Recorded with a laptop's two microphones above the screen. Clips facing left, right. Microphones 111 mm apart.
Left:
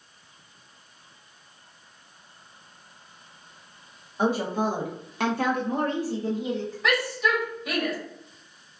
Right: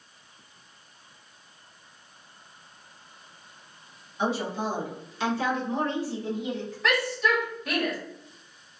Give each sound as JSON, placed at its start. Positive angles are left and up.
{"t": 4.2, "sound": "a woman speaking", "side_deg": 45, "distance_m": 0.9}
{"t": 6.8, "sound": "a shout", "side_deg": 5, "distance_m": 1.3}